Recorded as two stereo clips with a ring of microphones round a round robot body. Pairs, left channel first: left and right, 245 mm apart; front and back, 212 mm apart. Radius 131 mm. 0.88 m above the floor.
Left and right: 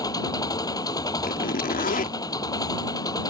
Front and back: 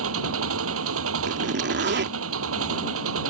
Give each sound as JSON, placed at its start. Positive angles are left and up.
{"t": 0.0, "sound": "an engine running", "azimuth_deg": 165}
{"t": 1.2, "sound": "a zipper", "azimuth_deg": 145}